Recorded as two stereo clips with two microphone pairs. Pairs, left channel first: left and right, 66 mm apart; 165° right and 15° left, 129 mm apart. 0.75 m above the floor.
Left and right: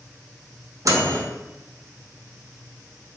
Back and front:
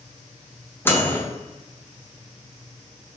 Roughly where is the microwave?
Right.